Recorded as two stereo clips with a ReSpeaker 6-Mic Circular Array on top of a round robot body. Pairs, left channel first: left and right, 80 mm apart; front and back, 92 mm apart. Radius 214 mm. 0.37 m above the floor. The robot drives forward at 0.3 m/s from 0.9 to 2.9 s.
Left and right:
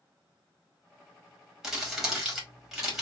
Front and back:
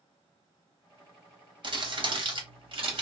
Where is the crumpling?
170° right, 2.0 m; by 3.0 s 175° right, 2.5 m.